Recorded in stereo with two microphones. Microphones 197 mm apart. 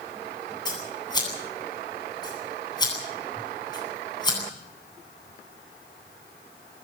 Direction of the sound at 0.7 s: 20° left (ahead or behind).